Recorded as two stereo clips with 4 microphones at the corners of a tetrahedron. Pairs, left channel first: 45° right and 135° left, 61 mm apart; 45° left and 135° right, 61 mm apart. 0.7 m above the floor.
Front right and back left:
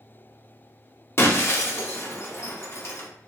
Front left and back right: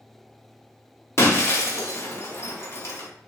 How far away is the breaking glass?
About 0.6 m.